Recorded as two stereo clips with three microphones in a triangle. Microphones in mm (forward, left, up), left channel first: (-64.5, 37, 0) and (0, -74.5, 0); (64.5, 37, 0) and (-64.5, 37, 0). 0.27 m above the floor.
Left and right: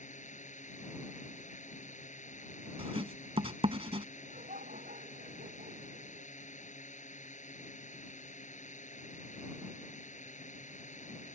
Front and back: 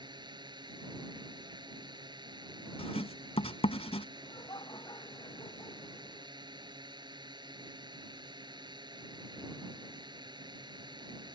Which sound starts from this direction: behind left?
A drone, at 0.0 s.